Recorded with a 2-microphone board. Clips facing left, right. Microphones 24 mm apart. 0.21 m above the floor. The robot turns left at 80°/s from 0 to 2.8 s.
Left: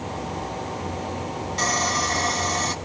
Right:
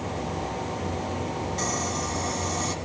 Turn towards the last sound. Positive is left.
turn(degrees=35)